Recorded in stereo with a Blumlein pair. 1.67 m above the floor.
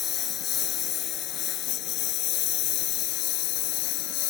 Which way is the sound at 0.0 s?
30° left.